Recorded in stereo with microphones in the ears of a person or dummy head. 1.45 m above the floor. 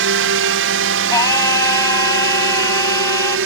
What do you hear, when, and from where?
0.0 s a drone: 60° right (ahead or behind); by 3.5 s 65° right (ahead or behind)
1.1 s singing: 20° left (ahead or behind)